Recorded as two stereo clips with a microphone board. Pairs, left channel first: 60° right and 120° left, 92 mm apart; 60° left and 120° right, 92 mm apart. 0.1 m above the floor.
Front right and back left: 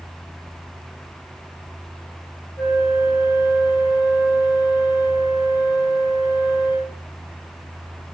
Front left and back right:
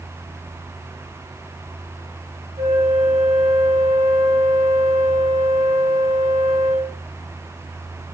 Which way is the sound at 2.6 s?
120° right.